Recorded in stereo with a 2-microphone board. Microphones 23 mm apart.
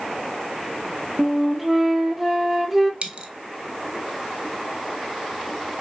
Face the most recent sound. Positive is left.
turn(degrees=-50)  # may be behind; listen again after turning